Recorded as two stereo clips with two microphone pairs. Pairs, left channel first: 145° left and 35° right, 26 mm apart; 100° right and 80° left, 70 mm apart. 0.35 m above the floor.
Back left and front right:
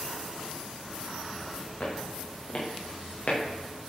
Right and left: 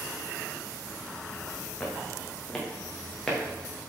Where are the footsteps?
Straight behind, 6 m.